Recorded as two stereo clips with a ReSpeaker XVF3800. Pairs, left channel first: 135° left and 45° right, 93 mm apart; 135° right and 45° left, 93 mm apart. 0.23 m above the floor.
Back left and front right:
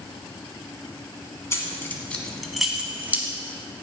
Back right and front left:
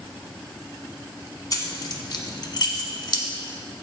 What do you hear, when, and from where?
1.5 s keys jangling: 170° right, 1.3 m; by 3.2 s 110° right, 1.3 m